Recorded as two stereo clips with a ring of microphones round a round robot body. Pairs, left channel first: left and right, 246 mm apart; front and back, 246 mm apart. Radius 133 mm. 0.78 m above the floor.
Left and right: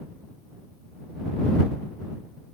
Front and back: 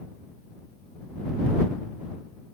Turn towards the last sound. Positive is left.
No sound to turn to.